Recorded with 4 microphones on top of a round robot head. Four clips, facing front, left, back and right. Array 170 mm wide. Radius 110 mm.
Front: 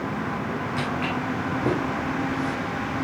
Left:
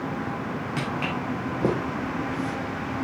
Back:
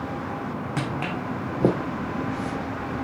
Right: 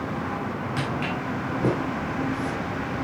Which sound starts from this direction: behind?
Footsteps, at 0.8 s.